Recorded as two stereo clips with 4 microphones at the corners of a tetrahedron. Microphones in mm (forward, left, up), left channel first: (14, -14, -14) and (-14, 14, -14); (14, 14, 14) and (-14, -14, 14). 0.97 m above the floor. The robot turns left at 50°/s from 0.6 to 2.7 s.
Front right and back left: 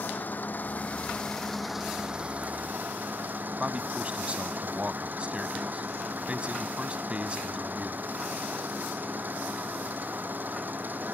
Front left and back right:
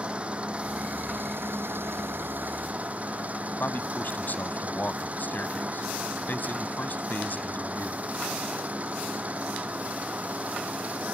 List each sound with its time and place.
0.0 s an engine running: 80° right; by 11.2 s 175° left
3.6 s a man speaking: 80° left